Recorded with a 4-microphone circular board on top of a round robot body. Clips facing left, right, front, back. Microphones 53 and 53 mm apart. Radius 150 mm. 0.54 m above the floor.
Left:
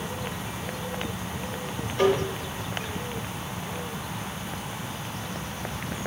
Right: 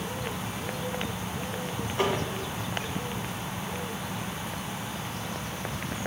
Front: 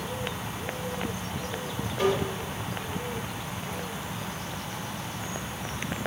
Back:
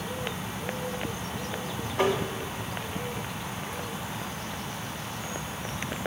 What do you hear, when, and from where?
2.0 s tapping: 155° right, 1.6 m